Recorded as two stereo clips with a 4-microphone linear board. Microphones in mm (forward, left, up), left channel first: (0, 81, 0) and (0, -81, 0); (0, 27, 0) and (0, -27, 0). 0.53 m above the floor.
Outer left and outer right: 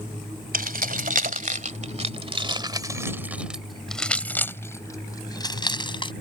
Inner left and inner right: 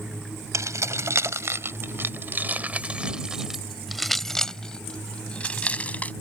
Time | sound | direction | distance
0.5 | keys jangling | 70° right (ahead or behind) | ?